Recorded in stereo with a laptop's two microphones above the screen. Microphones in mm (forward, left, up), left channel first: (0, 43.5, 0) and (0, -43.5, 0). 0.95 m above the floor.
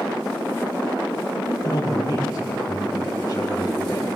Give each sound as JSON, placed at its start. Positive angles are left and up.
{"t": 1.4, "sound": "a man speaking", "side_deg": 45, "distance_m": 5.0}